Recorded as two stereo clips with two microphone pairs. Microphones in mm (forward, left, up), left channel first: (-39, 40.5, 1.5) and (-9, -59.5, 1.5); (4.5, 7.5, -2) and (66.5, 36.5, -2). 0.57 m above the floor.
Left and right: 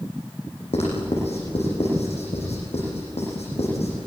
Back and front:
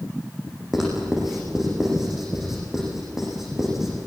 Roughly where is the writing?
Left.